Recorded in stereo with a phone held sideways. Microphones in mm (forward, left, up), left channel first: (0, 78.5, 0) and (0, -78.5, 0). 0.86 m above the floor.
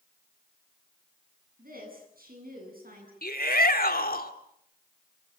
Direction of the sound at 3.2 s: 75° left (ahead or behind).